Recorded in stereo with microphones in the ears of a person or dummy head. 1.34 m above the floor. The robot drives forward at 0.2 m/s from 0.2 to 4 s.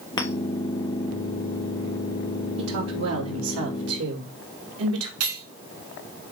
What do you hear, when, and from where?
0.2 s a clink: 25° left (ahead or behind), 0.9 m
2.6 s a woman speaking: 80° right, 3 m
5.2 s cutlery clinking: 75° right (ahead or behind), 3.5 m